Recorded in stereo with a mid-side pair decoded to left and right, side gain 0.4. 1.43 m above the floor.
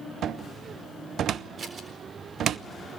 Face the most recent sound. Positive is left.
turn(degrees=-50)